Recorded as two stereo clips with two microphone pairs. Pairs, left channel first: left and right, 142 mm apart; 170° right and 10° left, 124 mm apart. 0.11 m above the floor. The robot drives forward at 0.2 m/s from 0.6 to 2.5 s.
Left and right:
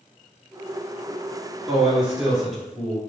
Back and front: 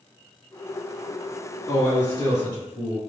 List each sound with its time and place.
1.7 s a man speaking: 165° right, 1.7 m; by 3.0 s 170° right, 1.8 m